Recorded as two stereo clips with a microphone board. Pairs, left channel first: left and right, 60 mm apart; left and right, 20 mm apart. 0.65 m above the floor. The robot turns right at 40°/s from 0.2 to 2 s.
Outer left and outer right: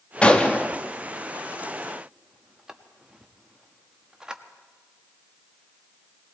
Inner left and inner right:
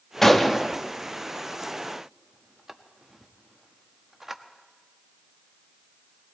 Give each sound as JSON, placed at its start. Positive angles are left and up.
{"t": 0.2, "sound": "a gunshot", "side_deg": 20, "distance_m": 0.8}